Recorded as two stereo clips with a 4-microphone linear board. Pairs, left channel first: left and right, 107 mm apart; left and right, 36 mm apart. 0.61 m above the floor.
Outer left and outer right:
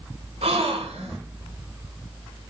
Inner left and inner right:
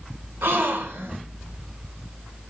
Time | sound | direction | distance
0.4 | a gasp | 80° right | 1.3 m